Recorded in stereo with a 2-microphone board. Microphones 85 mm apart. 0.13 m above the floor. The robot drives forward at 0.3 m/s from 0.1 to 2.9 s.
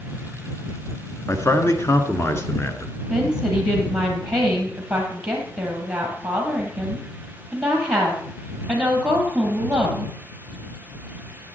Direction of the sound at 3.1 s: 10° right (ahead or behind).